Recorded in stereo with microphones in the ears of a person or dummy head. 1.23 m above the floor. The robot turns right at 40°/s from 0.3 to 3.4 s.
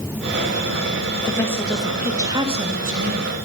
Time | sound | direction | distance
1.2 | a woman speaking | 160° left | 1.8 m